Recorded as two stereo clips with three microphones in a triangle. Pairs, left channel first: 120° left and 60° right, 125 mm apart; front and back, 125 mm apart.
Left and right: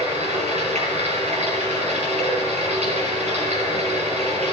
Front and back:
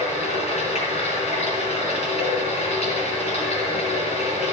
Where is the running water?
30° right, 4.5 m.